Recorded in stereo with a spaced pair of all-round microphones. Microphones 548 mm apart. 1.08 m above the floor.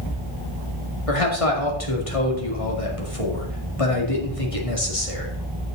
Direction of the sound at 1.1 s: 75° left (ahead or behind).